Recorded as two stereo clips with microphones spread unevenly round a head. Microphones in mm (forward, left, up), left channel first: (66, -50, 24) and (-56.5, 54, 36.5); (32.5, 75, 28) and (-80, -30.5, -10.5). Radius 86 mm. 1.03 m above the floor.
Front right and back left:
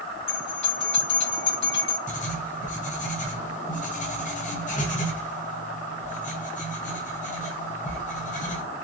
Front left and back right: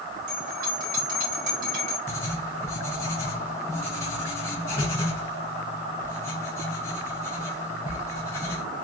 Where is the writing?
40° right, 1.2 m.